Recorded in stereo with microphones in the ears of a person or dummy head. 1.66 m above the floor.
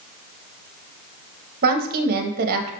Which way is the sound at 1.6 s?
60° right (ahead or behind).